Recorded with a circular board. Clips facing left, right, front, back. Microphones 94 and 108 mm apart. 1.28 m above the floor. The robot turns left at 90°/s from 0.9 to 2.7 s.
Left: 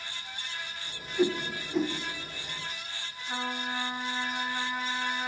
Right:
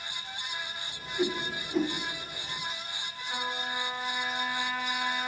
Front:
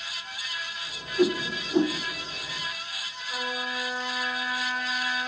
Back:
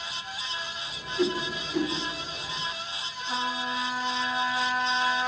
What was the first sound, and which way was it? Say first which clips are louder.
A whoosh: left 3 dB, front 3 dB; 50° left.